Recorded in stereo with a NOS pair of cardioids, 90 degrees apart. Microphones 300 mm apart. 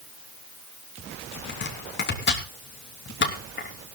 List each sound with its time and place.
1.5 s chopping: 35° left, 3 m